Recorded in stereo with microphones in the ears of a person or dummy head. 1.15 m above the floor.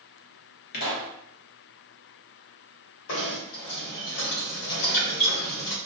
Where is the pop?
55° left (ahead or behind), 0.9 m.